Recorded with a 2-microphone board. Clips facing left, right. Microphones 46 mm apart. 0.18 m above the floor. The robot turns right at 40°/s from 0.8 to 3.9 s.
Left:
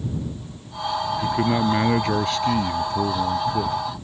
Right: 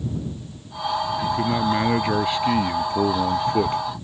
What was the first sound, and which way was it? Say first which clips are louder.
A man speaking: left 3 dB; 155° left.